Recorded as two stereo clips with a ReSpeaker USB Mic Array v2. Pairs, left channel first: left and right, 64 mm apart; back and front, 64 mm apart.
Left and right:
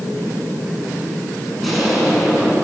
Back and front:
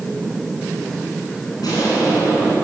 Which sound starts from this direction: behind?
An explosion, at 1.6 s.